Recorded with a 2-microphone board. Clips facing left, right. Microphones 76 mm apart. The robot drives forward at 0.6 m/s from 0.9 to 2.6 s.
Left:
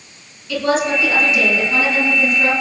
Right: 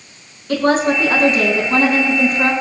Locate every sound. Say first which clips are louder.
0.5 s a woman speaking: right 3 dB; 45° right (ahead or behind), 7 m; by 2.5 s 50° right (ahead or behind), 6.5 m